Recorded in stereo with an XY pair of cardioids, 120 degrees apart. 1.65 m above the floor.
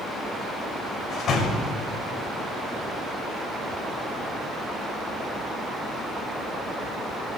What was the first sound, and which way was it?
A door slam, 50° left.